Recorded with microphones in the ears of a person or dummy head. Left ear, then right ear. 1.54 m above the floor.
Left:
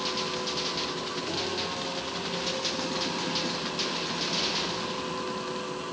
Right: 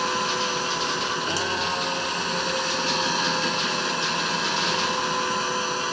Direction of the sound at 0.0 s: 55° right (ahead or behind).